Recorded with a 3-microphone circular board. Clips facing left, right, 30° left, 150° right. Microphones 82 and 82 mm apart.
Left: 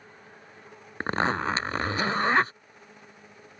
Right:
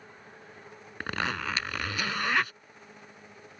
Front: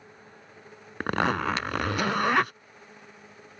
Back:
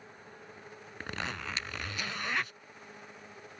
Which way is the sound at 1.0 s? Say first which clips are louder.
Left 6 dB, front 13 dB; 40° left.